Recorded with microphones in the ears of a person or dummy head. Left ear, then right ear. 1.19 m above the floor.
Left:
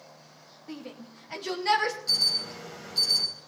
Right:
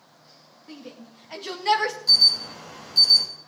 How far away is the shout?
About 2 m.